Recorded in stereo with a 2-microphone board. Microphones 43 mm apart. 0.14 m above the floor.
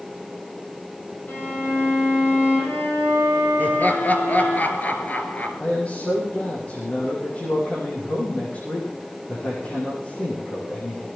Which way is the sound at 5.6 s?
30° left (ahead or behind).